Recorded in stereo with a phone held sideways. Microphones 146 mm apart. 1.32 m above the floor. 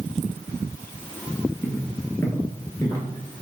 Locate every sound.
1.6 s footsteps: 20° left (ahead or behind), 1.3 m; by 3.0 s 25° left (ahead or behind), 1.5 m